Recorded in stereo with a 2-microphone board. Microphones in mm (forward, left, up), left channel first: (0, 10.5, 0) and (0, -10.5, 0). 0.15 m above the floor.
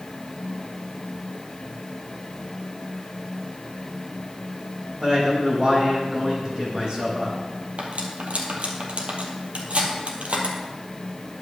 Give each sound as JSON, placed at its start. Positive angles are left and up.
{"t": 5.0, "sound": "a man speaking", "side_deg": -45, "distance_m": 6.0}
{"t": 7.8, "sound": "cutlery clinking", "side_deg": -75, "distance_m": 3.0}